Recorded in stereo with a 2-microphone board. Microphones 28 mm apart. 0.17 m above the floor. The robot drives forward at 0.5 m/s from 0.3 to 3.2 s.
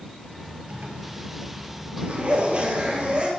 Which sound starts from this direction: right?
A zipper, at 0.7 s.